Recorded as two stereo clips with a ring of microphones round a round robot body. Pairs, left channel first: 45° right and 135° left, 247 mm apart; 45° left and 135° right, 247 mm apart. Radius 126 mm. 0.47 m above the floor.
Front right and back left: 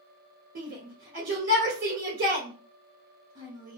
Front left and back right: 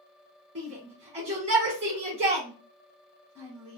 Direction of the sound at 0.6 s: 175° left.